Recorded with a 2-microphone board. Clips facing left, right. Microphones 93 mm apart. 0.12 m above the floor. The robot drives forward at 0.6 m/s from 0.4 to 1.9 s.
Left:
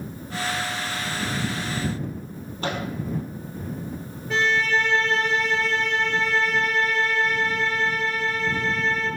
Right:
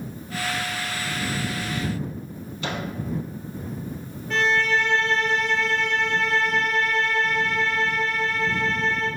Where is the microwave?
45° left (ahead or behind), 2.5 m.